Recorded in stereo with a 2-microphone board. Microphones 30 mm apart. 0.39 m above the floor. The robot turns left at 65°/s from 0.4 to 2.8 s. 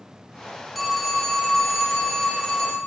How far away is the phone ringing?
About 0.8 m.